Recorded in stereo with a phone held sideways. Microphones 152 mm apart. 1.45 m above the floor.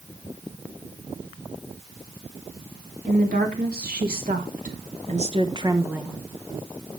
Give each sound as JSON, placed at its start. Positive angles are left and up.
{"t": 3.0, "sound": "a woman speaking", "side_deg": -90, "distance_m": 3.0}